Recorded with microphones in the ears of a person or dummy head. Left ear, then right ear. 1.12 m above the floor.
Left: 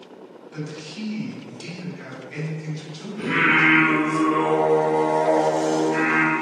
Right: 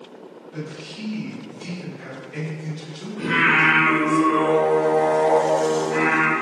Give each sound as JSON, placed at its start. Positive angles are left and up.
{"t": 0.5, "sound": "a man speaking", "side_deg": 70, "distance_m": 1.4}
{"t": 3.2, "sound": "singing", "side_deg": 25, "distance_m": 1.7}